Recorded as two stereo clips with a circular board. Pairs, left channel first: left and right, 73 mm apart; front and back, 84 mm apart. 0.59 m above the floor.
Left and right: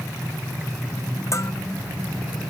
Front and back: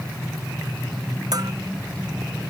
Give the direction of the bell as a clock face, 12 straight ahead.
7 o'clock.